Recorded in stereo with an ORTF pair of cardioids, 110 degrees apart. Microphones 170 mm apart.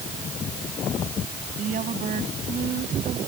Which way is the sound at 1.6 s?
50° right.